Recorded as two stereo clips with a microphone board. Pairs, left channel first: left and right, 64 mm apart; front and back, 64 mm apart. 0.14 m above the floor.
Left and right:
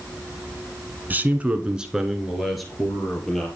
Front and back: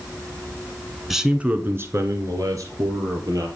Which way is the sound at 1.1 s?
95° right.